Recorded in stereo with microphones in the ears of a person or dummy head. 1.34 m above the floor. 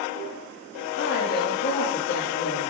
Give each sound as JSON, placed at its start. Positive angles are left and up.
{"t": 1.0, "sound": "a woman speaking", "side_deg": 55, "distance_m": 1.7}